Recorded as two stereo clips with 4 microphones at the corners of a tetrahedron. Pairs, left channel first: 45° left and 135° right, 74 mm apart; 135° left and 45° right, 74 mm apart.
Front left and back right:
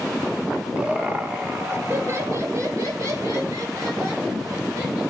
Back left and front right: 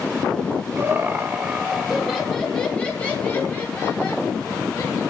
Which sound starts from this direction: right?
Laughter, at 0.8 s.